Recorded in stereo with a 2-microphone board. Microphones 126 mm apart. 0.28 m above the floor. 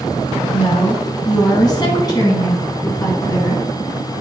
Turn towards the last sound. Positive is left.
turn(degrees=30)  # may be behind; listen again after turning